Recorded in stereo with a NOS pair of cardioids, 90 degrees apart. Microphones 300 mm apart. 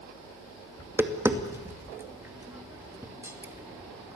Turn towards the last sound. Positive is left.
turn(degrees=-10)